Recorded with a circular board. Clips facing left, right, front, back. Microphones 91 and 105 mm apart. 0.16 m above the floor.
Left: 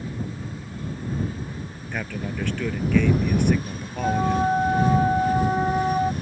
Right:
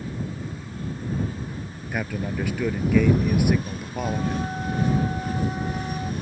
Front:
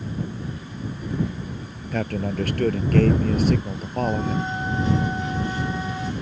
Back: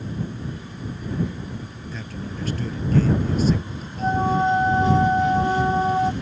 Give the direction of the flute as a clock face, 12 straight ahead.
8 o'clock.